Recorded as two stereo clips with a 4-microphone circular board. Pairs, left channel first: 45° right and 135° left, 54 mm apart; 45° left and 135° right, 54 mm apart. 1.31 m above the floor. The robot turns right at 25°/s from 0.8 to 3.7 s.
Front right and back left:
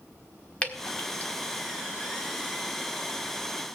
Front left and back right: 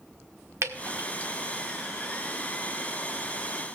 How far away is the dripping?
About 1.5 m.